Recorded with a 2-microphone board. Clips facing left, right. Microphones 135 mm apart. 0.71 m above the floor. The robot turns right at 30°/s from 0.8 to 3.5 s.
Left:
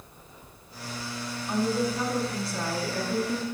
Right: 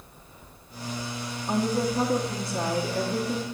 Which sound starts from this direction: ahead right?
A woman speaking, at 1.5 s.